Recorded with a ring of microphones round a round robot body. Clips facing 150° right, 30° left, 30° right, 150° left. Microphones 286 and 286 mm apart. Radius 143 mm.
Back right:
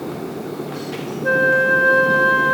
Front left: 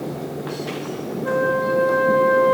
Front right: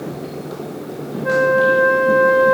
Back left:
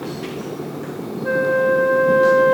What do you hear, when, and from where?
1.2 s a flute: 115° right, 1.2 m